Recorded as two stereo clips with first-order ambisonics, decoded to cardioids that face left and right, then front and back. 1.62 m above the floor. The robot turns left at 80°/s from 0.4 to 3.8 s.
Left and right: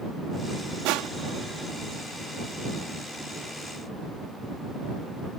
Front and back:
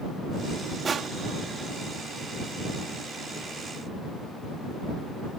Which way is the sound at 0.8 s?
105° right.